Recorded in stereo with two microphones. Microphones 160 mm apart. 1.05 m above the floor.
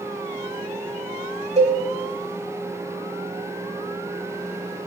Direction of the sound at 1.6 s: 45° right (ahead or behind).